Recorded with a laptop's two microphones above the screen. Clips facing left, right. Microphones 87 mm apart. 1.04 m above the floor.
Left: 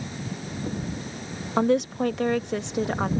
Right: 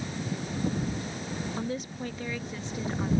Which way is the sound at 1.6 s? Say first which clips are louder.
Left 12 dB; 70° left (ahead or behind).